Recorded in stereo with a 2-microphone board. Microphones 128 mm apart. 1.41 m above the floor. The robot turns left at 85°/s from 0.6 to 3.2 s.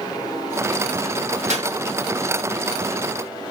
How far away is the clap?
About 1.6 m.